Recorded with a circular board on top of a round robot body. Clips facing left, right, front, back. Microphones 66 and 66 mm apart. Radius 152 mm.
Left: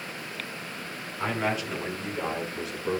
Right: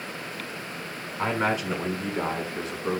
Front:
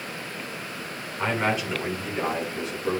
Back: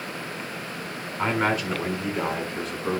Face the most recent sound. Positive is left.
turn(degrees=-135)